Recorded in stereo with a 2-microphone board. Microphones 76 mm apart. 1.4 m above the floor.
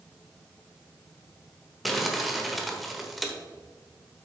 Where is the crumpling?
Centre (ahead or behind), 1.2 m.